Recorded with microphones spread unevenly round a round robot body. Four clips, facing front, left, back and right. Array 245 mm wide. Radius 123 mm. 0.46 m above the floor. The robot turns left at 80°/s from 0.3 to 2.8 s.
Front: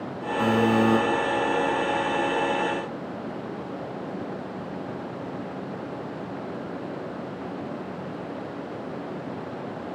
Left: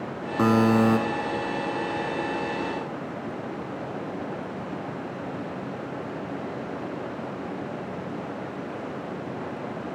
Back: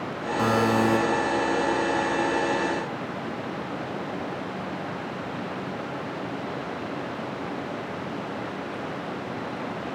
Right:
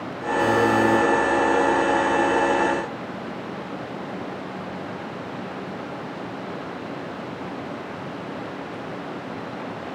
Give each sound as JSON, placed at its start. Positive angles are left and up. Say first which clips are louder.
{"t": 0.4, "sound": "a buzzer", "louder": "right 1 dB, front 1 dB", "azimuth_deg": 105, "distance_m": 1.0}